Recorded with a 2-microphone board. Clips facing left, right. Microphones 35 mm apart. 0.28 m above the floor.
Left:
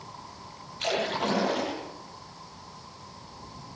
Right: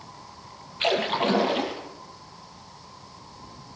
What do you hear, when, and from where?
0.8 s a splash: 35° right (ahead or behind), 7 m